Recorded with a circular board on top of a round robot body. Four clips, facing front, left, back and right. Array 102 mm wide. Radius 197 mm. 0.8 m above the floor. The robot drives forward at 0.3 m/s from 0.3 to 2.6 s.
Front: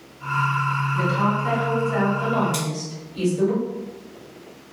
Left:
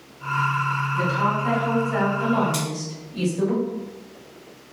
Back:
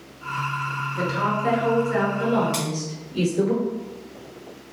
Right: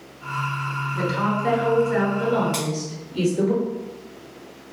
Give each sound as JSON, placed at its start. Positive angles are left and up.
{"t": 0.9, "sound": "a woman speaking", "azimuth_deg": -130, "distance_m": 1.4}
{"t": 2.5, "sound": "scissors", "azimuth_deg": -165, "distance_m": 1.5}